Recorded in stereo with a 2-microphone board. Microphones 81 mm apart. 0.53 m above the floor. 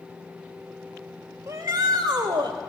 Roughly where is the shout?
Right.